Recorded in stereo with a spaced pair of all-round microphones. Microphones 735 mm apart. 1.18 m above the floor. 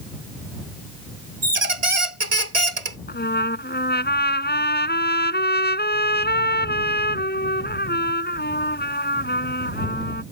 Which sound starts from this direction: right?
A squeak, at 1.4 s.